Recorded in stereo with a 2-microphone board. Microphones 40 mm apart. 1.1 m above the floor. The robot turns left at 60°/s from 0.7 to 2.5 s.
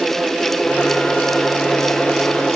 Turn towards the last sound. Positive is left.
No sound to turn to.